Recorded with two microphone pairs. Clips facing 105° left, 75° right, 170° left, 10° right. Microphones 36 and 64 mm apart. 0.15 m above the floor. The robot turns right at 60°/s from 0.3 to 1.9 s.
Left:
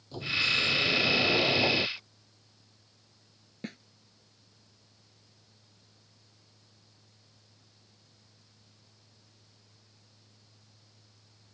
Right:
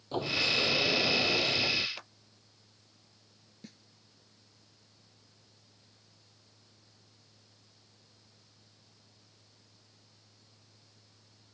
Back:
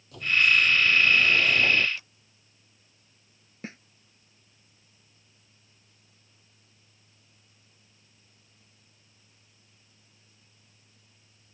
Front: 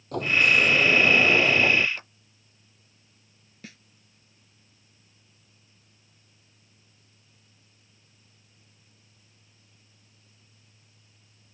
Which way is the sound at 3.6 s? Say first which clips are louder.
Left 11 dB, back 6 dB; 120° left.